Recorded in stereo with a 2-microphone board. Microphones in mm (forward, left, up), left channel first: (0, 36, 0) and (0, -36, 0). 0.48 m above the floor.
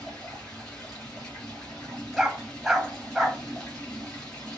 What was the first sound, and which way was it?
Running water, 10° left (ahead or behind).